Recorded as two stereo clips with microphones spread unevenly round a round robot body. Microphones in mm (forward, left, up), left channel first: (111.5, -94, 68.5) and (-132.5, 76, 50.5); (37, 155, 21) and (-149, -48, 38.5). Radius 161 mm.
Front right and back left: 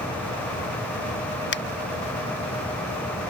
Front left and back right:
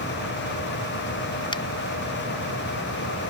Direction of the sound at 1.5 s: 10° right.